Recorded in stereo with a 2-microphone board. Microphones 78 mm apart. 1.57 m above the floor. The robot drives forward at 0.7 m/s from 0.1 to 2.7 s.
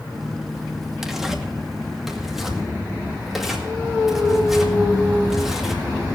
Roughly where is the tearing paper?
Centre.